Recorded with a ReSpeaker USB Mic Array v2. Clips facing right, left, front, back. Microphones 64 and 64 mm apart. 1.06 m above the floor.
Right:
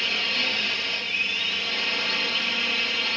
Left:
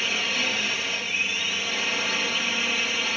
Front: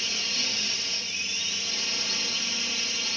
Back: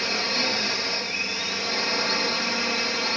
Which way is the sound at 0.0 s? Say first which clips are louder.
Left 1 dB, back 8 dB; 170° left.